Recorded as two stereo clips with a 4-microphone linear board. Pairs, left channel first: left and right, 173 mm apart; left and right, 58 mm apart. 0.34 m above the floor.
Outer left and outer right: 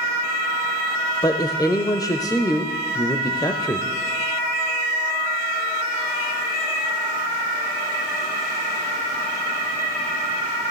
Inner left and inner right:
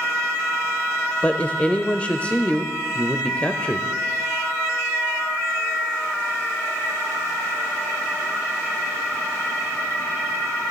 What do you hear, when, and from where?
1.2 s a woman speaking: 20° left (ahead or behind), 0.9 m